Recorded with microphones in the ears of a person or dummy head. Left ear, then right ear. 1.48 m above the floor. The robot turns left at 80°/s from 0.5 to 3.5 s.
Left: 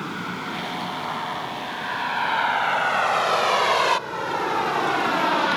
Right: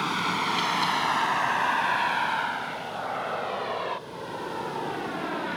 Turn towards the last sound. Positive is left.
turn(degrees=50)  # may be behind; listen again after turning